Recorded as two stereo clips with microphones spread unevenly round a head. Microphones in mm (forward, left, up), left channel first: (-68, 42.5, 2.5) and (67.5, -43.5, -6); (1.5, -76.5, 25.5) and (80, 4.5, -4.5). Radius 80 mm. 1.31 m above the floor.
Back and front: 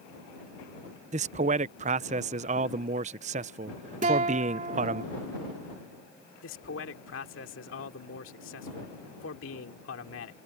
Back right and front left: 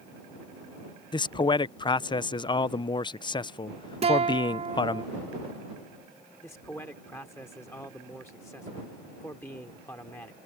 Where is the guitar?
10° left.